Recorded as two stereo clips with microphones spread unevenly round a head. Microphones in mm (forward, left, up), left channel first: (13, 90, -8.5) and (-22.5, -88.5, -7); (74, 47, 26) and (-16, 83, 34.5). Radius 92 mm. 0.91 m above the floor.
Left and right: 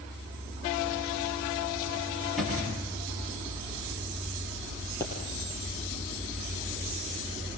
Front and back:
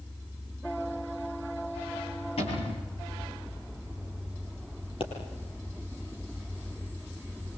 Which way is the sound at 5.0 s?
Straight ahead.